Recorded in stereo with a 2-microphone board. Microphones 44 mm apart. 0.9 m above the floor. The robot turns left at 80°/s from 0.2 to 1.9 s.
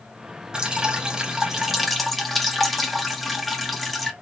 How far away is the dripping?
About 0.6 m.